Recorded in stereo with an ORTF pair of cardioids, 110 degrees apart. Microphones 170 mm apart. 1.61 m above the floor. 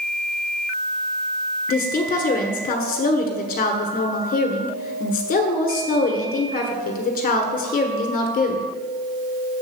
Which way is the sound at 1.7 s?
60° left.